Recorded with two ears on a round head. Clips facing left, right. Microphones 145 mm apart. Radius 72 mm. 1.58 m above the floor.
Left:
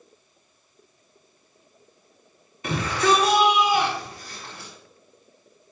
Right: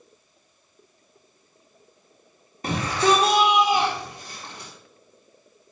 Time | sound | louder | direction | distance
2.6 | a shout | right 1 dB | 35° right (ahead or behind) | 3.5 m